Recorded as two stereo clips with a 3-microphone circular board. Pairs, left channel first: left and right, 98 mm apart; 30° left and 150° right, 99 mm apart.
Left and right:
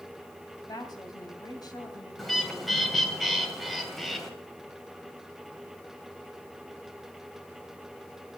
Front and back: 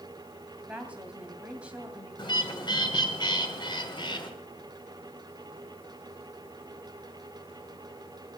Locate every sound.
0.6 s a woman speaking: 135° left, 2.5 m
2.2 s a bird: straight ahead, 2.5 m